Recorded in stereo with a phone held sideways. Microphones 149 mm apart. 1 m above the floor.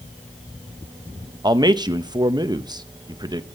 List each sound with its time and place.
1.4 s a man speaking: 30° right (ahead or behind), 0.8 m